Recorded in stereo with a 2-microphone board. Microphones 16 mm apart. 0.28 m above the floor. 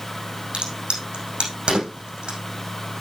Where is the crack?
80° right, 5.5 m.